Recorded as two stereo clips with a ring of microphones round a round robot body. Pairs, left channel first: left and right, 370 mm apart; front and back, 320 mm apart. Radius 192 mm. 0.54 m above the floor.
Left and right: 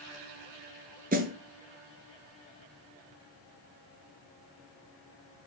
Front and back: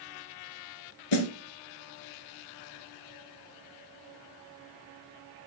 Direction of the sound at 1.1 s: 20° right.